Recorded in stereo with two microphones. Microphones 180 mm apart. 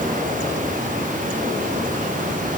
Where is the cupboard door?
I don't hear a cupboard door.